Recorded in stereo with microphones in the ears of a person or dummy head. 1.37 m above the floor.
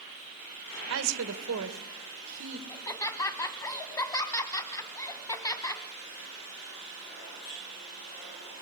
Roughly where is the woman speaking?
Right.